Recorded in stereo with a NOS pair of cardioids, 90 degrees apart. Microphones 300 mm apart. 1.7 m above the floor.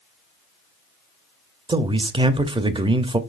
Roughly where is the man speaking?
Ahead.